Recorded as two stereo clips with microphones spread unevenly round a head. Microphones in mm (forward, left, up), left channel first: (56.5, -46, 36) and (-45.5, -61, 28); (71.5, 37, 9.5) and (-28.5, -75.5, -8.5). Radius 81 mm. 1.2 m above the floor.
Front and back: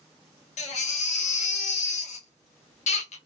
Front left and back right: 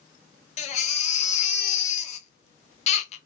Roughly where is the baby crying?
Ahead.